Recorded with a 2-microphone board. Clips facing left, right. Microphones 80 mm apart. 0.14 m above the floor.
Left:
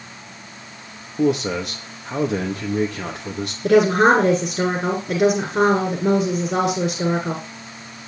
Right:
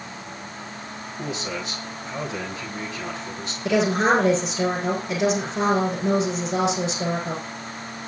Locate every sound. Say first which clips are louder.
1.2 s a man speaking: left 11 dB; 65° left (ahead or behind), 4 m
3.6 s a woman speaking: left 6 dB; 55° left (ahead or behind), 7.5 m